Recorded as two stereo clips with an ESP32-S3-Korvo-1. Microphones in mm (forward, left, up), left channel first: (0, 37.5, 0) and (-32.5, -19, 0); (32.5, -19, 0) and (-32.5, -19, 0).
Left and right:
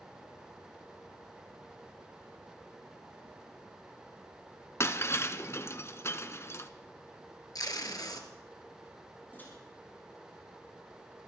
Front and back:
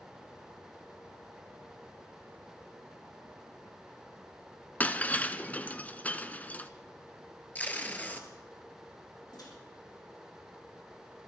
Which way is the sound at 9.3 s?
Straight ahead.